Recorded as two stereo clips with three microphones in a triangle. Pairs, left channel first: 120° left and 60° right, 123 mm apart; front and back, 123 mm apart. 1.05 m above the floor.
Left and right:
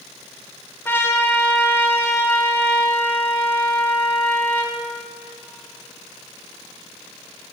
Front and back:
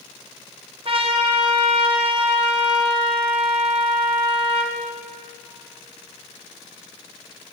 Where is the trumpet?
175° right, 1.1 m.